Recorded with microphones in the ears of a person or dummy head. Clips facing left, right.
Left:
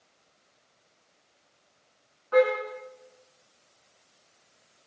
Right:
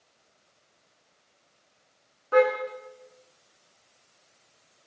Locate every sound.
2.3 s a car horn: 45° right (ahead or behind), 6 m